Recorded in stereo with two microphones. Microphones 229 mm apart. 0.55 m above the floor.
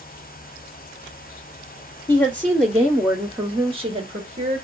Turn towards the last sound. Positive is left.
turn(degrees=-30)  # may be behind; listen again after turning